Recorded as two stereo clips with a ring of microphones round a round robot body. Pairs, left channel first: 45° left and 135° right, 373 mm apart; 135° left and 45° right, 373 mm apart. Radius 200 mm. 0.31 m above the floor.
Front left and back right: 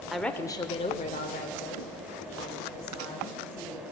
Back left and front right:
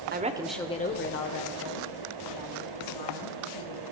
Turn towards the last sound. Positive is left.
turn(degrees=115)